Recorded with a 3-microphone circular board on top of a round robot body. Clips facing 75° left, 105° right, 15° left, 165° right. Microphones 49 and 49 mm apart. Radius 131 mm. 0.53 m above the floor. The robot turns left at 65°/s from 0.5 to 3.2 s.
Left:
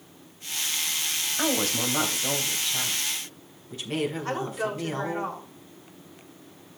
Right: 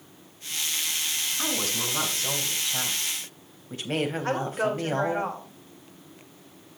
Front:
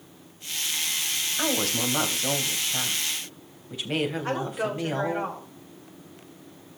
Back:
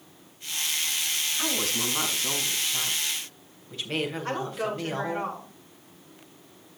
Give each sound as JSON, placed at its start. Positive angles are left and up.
{"t": 1.4, "sound": "a woman speaking", "azimuth_deg": 55, "distance_m": 4.0}
{"t": 4.2, "sound": "a woman speaking", "azimuth_deg": -65, "distance_m": 5.0}